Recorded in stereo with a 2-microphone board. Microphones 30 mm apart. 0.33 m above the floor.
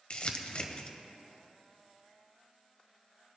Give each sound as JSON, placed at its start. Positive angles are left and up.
{"t": 0.1, "sound": "crumpling", "side_deg": 40, "distance_m": 0.9}